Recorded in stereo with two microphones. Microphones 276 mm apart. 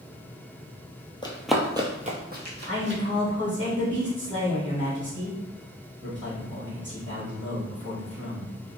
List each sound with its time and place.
1.2 s running footsteps: 20° left (ahead or behind), 0.5 m; by 3.0 s 45° right (ahead or behind), 1.2 m
2.7 s a man speaking: 40° right (ahead or behind), 1.5 m